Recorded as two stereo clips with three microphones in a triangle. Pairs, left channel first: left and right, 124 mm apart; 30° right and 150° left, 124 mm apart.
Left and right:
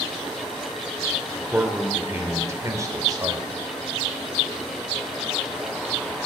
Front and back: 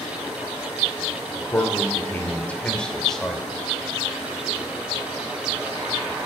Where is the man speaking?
15° right, 1.2 m; by 3.5 s 120° right, 1.5 m.